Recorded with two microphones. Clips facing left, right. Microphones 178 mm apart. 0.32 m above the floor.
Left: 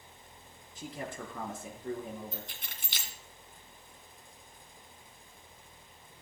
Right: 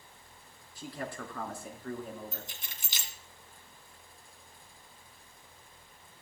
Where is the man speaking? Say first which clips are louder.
Right 1 dB; 20° left (ahead or behind), 4 m.